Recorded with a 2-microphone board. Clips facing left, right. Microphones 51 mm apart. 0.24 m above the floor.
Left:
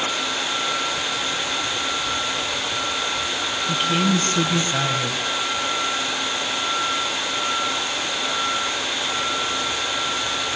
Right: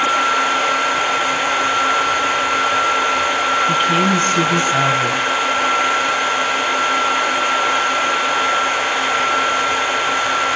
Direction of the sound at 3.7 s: 25° right (ahead or behind).